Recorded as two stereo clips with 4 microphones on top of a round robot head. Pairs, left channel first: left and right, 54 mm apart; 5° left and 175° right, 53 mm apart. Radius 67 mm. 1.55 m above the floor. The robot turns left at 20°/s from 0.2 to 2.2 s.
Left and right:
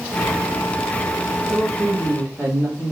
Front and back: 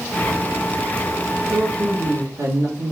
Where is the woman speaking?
125° right, 3 m; by 2.9 s 140° right, 3 m.